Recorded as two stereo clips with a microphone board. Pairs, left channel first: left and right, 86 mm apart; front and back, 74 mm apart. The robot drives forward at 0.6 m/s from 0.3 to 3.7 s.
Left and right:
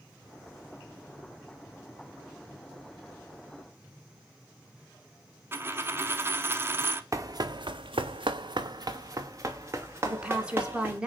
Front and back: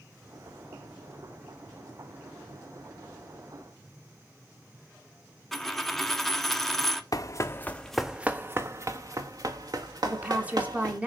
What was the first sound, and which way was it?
A dropped coin, 85° right.